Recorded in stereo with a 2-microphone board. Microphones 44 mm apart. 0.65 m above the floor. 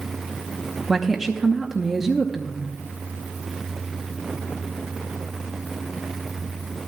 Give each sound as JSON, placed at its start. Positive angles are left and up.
{"t": 0.9, "sound": "a woman speaking", "side_deg": -5, "distance_m": 0.8}